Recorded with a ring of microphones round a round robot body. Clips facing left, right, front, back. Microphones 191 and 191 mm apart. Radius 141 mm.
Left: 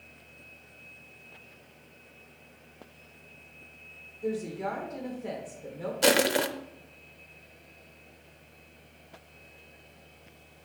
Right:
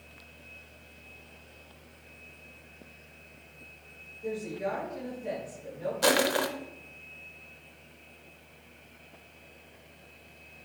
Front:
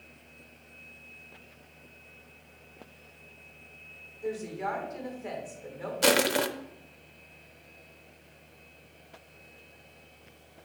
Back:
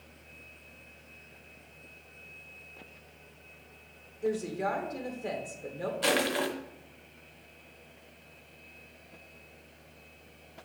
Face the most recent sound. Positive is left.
turn(degrees=25)